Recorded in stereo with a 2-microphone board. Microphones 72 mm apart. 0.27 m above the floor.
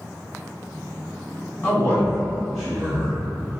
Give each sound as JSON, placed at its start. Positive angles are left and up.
{"t": 1.6, "sound": "a man speaking", "side_deg": 20, "distance_m": 1.7}